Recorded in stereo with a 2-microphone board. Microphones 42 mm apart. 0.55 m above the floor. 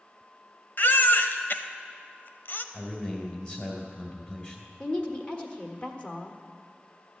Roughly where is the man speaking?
Left.